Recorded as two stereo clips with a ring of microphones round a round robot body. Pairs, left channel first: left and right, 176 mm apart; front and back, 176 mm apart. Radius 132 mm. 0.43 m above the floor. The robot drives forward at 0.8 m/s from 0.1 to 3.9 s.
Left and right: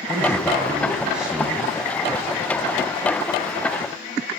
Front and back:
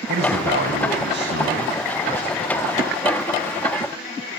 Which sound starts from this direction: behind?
A man speaking, at 0.1 s.